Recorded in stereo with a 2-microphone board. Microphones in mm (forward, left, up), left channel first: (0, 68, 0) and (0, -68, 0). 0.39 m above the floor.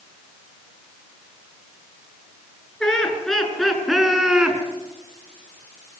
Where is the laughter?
5° left (ahead or behind), 6.5 m; by 4.6 s 5° right (ahead or behind), 4.5 m.